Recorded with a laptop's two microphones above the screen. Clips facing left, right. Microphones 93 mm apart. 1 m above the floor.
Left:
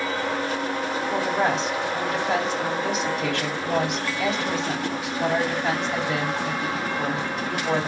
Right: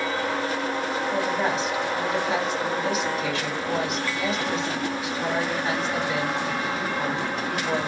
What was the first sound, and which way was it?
A woman speaking, 80° left.